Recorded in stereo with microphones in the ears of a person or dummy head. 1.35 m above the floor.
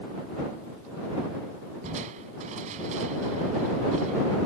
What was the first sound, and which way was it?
Crushing, 40° right (ahead or behind).